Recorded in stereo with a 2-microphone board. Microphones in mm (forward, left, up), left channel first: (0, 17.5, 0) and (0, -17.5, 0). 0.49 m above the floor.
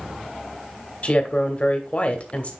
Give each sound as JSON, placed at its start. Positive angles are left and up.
{"t": 1.0, "sound": "a woman speaking", "side_deg": 35, "distance_m": 1.3}